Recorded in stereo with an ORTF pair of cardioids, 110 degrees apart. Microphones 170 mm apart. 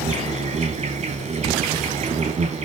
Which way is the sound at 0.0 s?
40° right.